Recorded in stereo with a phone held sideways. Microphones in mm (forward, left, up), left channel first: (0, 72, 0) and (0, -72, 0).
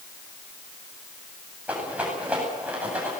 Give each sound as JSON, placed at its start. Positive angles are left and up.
{"t": 1.7, "sound": "a rattle", "side_deg": -10, "distance_m": 9.5}